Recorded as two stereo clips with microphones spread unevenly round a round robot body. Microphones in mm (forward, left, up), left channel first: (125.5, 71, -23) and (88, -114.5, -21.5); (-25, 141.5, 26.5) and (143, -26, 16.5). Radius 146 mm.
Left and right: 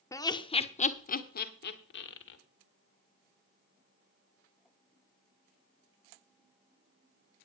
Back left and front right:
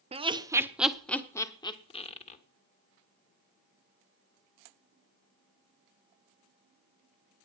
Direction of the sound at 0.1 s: 10° left.